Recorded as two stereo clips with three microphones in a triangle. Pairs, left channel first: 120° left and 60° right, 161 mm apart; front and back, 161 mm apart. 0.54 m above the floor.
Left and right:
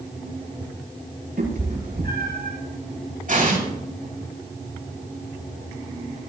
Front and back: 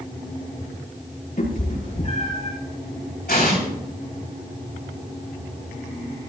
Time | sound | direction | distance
1.4 | a cat meowing | 35° right | 6 m
3.3 | an explosion | 25° right | 6 m